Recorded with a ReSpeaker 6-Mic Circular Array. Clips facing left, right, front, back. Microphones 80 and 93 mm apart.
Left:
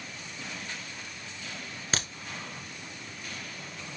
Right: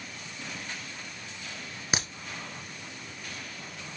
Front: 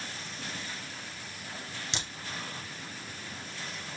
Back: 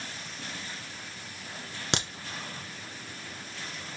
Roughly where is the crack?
Behind.